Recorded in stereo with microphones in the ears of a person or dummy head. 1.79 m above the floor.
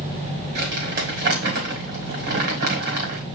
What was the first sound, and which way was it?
Crumpling, 50° right (ahead or behind).